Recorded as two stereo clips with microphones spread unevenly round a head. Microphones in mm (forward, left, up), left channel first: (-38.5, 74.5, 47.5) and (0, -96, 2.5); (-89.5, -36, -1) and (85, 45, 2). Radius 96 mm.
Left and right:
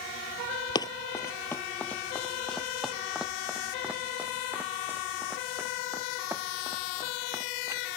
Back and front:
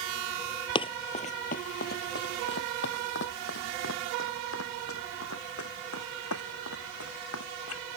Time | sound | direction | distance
0.8 | running footsteps | 150° left | ?